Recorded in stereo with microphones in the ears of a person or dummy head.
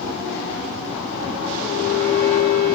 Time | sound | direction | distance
1.6 | a violin | 30° right (ahead or behind) | 1.6 m